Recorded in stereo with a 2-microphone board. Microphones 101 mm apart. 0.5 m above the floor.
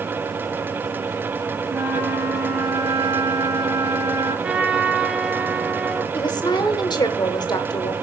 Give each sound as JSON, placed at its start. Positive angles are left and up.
{"t": 1.7, "sound": "a flute", "side_deg": -75, "distance_m": 4.5}
{"t": 4.4, "sound": "a trumpet", "side_deg": -10, "distance_m": 1.6}
{"t": 6.1, "sound": "a woman speaking", "side_deg": 45, "distance_m": 1.2}